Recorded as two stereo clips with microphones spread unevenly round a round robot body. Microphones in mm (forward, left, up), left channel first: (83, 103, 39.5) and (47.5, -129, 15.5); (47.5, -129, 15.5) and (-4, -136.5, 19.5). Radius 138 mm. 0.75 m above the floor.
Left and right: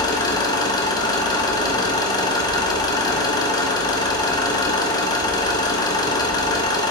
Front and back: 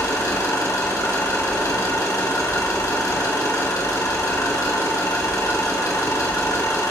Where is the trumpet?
I don't hear a trumpet.